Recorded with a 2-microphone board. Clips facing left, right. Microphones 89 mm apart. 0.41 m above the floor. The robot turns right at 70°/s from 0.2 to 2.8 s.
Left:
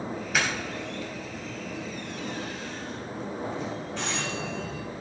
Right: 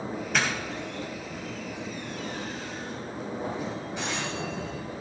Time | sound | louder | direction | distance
0.3 | a doorbell | even | 5° left (ahead or behind) | 3.5 m